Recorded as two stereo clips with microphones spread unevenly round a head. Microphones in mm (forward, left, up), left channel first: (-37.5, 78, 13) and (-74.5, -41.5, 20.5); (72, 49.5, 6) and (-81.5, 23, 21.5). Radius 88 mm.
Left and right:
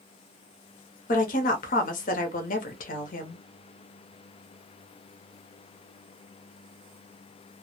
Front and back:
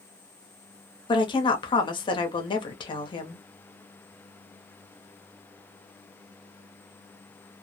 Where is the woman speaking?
70° left, 0.7 m.